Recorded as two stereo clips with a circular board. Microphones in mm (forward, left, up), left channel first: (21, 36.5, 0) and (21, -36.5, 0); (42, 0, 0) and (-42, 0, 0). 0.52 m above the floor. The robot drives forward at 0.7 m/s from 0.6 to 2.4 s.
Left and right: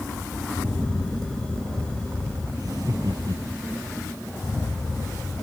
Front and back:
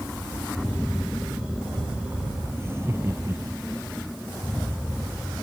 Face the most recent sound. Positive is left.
turn(degrees=-120)